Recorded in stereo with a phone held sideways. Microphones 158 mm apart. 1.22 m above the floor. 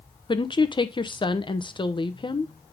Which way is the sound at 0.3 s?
30° left (ahead or behind).